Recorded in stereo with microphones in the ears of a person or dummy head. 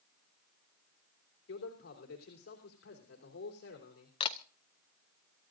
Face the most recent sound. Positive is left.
turn(degrees=30)  # may be behind; listen again after turning